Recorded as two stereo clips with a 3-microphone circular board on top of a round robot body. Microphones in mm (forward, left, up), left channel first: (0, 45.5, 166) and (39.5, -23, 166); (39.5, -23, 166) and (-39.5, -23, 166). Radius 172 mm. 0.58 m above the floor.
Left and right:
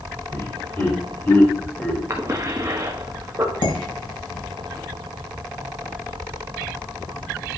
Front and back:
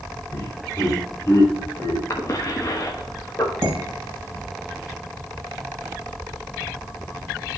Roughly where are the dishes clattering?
Behind left.